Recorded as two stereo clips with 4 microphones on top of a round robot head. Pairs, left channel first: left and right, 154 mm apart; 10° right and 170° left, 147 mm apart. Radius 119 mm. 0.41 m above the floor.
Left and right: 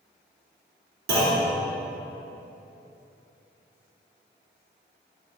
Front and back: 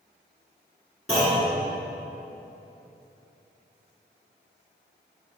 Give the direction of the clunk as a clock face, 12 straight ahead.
3 o'clock.